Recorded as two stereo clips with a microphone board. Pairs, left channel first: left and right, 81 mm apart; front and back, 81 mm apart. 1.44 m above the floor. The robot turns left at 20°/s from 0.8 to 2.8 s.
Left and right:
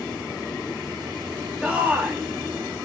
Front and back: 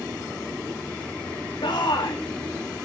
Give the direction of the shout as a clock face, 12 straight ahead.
12 o'clock.